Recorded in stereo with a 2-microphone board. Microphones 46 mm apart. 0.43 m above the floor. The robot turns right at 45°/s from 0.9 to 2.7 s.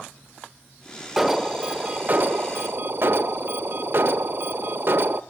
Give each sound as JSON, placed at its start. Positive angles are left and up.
{"t": 1.2, "sound": "an alarm", "azimuth_deg": -175, "distance_m": 0.7}